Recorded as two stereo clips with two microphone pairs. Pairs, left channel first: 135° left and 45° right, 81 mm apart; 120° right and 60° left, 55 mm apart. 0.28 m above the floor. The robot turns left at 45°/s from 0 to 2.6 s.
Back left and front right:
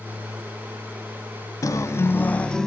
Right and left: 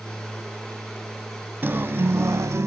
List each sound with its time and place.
1.6 s a guitar: 105° left, 0.9 m; by 2.7 s 60° left, 0.9 m